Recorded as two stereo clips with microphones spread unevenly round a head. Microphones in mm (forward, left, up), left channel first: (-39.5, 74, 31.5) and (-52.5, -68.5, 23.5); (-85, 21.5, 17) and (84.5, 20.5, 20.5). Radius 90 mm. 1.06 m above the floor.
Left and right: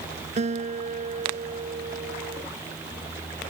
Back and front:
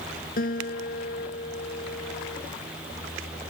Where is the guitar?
135° right.